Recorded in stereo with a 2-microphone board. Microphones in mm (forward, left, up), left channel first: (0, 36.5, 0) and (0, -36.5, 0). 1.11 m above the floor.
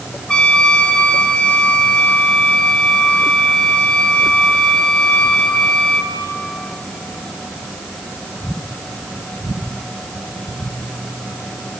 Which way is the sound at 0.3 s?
15° left (ahead or behind).